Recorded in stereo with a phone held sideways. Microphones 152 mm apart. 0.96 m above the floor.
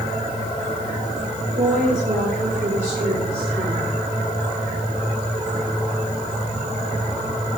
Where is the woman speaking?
70° right (ahead or behind), 3 m; by 4.0 s 40° right (ahead or behind), 3.5 m.